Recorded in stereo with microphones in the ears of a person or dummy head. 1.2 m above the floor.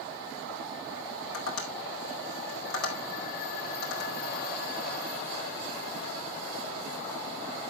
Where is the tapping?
70° left (ahead or behind), 4.5 m.